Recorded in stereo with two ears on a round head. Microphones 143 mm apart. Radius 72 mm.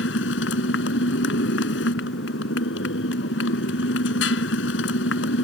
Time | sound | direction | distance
0.0 | a motorcycle | 80° left | ?